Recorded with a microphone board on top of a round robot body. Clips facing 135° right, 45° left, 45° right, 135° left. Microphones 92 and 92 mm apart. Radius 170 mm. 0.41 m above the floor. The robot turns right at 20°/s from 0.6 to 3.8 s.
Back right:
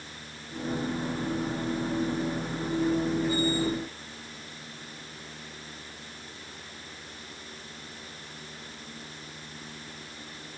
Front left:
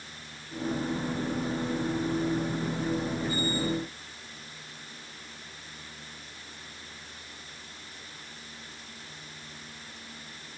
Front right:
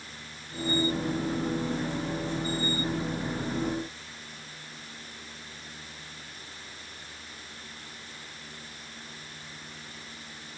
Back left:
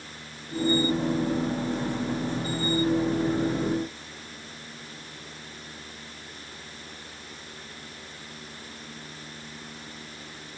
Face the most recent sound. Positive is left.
No sound to turn to.